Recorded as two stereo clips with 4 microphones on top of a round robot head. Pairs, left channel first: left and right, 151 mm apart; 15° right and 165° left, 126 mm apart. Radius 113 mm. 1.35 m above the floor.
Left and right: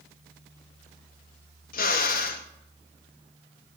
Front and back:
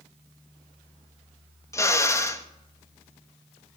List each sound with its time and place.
1.7 s a drill: 55° left, 2 m